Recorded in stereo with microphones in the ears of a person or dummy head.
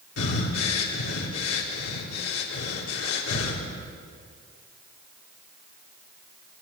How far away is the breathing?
About 4 m.